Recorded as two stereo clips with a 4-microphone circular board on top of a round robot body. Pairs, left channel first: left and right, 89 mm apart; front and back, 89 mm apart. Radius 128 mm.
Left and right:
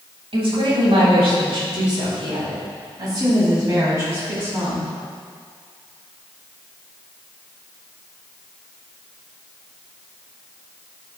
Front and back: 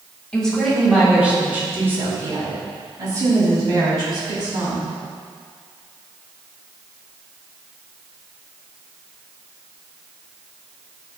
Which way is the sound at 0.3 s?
80° right.